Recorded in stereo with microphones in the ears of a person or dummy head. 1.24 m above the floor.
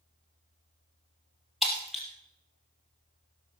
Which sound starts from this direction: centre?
Breaking glass, at 1.6 s.